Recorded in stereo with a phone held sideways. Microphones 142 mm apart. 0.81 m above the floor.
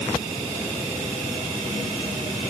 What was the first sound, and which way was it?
Only background noise.